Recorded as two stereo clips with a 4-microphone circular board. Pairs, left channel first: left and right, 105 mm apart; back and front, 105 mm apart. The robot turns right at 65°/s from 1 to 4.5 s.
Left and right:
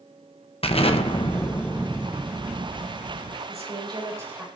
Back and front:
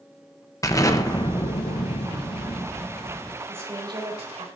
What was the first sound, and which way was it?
An explosion, 120° left.